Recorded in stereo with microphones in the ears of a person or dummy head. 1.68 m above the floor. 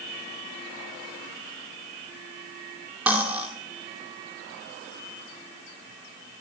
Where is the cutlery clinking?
10° right (ahead or behind), 2.5 m.